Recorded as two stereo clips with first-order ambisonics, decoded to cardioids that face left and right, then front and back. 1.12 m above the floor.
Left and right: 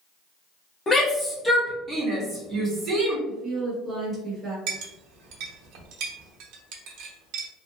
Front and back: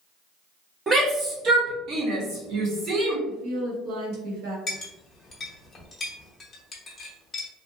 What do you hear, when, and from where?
0.9 s a shout: 135° left, 0.8 m; by 3.2 s 145° right, 1.5 m
3.3 s a woman speaking: 170° right, 1.1 m
4.7 s a clink: 75° right, 0.7 m